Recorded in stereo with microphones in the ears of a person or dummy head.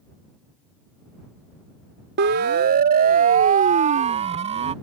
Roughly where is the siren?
Right.